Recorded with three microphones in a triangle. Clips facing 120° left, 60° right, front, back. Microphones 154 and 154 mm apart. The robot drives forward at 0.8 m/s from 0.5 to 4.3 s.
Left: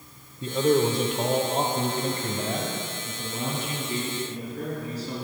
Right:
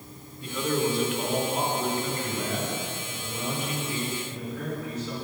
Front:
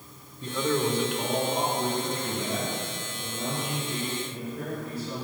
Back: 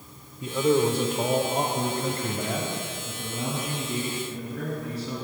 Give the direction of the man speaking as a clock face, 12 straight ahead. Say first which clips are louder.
Left 6 dB, back 5 dB; 8 o'clock.